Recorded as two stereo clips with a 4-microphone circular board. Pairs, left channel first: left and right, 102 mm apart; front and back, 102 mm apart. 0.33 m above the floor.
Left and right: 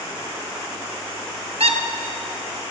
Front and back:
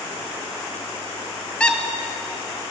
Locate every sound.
1.6 s a squeak: 80° right, 1.2 m